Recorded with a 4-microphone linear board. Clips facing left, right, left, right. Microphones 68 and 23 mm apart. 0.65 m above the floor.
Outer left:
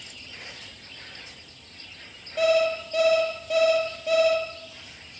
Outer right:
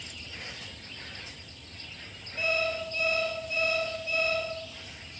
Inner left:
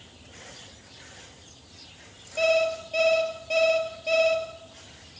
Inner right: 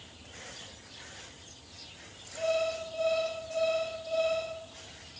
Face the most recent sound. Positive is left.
turn(degrees=80)